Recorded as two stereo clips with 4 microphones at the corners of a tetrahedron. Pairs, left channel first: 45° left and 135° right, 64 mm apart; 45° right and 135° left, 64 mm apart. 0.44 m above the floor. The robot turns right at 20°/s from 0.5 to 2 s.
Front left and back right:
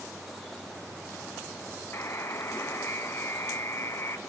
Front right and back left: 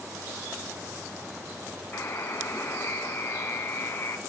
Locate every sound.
1.9 s a buzzer: straight ahead, 0.9 m